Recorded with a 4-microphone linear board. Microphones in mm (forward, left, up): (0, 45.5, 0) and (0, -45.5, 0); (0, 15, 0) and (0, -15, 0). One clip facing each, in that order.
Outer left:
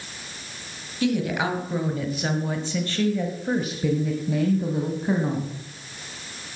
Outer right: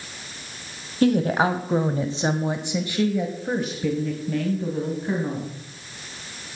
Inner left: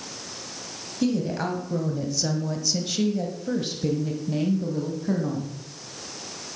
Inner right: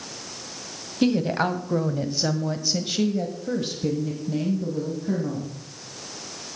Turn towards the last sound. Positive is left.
turn(degrees=20)  # may be behind; listen again after turning